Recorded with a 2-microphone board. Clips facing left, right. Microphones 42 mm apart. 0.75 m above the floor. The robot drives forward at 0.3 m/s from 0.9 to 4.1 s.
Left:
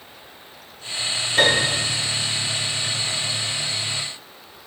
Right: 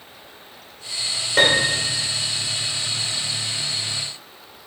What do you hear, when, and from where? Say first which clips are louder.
1.4 s a piano: right 1 dB; 75° right (ahead or behind), 2.5 m